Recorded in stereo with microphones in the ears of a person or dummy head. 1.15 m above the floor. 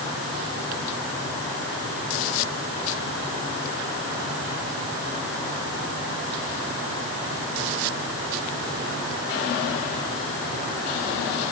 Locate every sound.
Only background noise.